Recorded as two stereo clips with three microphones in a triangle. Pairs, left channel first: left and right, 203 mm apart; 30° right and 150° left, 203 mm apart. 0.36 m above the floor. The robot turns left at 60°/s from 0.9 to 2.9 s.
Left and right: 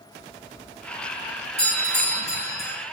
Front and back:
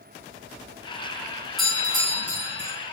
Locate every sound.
1.6 s a doorbell: 60° left, 4.5 m; by 2.7 s 10° right, 4.5 m